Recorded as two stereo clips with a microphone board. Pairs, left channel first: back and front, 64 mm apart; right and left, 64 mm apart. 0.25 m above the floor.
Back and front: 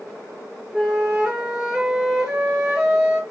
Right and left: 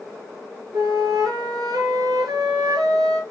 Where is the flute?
80° left, 3 m.